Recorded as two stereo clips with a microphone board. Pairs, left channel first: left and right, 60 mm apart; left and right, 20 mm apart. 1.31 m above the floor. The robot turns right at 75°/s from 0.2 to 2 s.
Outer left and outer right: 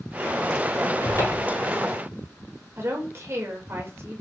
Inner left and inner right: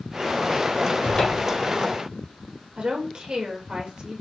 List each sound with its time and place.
1.0 s a cupboard door: 110° left, 6 m; by 1.6 s 155° left, 6 m
2.8 s a woman speaking: 40° right (ahead or behind), 6 m